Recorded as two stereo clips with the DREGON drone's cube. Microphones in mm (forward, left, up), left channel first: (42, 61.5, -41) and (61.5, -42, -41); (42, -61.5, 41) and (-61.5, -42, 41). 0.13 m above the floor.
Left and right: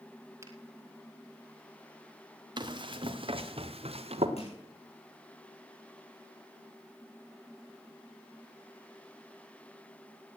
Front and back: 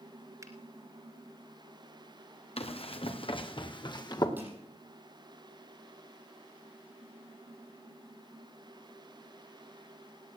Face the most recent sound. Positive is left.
turn(degrees=95)